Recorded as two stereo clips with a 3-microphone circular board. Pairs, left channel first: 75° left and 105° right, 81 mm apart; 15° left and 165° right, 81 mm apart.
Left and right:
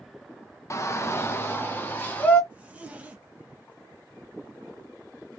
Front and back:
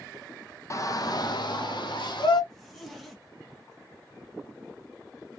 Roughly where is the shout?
Ahead left.